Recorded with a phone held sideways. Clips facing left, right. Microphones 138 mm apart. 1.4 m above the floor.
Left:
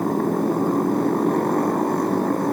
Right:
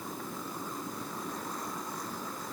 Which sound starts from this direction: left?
A motorcycle, at 0.0 s.